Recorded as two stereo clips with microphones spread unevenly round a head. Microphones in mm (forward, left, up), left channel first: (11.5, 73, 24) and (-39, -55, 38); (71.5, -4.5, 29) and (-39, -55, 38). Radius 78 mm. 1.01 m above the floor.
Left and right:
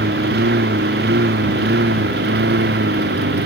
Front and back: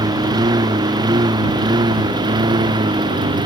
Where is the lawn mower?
100° right; by 3.5 s 105° right.